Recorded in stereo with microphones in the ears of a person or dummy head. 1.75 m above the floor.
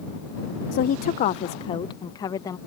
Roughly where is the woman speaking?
Left.